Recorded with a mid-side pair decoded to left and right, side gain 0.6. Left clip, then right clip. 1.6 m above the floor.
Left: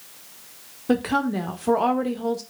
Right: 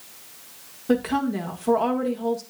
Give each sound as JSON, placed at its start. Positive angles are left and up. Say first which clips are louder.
{"t": 0.9, "sound": "a woman speaking", "louder": "left 1 dB", "azimuth_deg": 15, "distance_m": 1.7}